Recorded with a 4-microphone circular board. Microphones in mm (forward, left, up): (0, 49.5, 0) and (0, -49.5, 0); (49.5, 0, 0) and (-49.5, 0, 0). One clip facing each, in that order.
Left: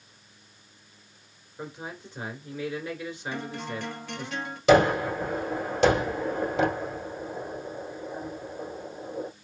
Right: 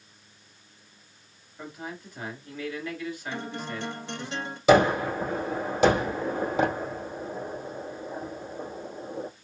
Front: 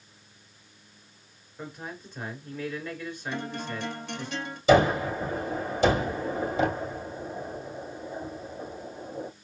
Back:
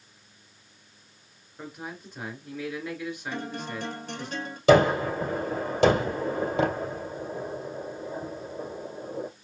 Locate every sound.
1.6 s a man speaking: 115° left, 1.5 m
3.3 s a guitar: 150° right, 1.1 m
4.7 s a gunshot: 175° right, 3 m